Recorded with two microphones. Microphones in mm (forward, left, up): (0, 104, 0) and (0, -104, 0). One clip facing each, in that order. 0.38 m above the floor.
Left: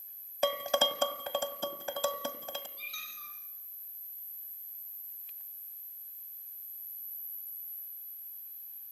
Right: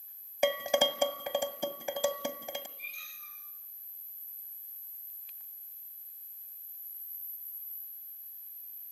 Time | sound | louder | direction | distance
0.4 | dishes clattering | right 2 dB | 15° right (ahead or behind) | 1.6 m
2.8 | a squeak | left 2 dB | 85° left | 10 m